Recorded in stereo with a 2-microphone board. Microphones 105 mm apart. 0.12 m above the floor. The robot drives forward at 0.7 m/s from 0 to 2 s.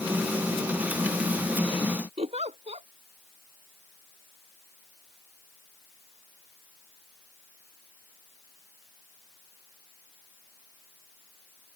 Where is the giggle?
80° right.